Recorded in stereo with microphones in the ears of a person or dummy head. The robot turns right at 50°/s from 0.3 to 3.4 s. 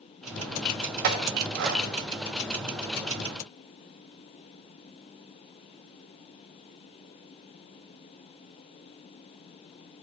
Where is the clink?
45° right (ahead or behind), 1.0 m; by 1.8 s 55° right (ahead or behind), 1.0 m.